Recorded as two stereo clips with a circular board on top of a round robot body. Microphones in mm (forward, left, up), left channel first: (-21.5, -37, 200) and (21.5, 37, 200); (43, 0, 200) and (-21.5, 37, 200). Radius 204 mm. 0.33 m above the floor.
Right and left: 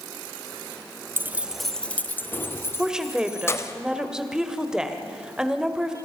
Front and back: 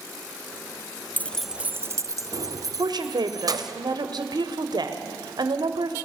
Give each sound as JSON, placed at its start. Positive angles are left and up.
{"t": 1.2, "sound": "keys jangling", "azimuth_deg": 15, "distance_m": 0.6}
{"t": 2.8, "sound": "a woman speaking", "azimuth_deg": 140, "distance_m": 2.0}